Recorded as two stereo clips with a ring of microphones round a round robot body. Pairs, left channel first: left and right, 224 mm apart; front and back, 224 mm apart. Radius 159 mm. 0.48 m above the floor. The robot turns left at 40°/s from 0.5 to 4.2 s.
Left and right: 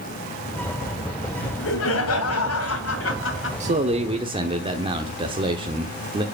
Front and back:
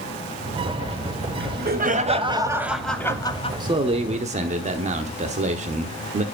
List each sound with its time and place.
1.4 s laughter: 150° left, 3 m; by 3.5 s 65° left, 3 m
3.6 s a man speaking: 120° right, 1.1 m; by 6.2 s 145° right, 1.1 m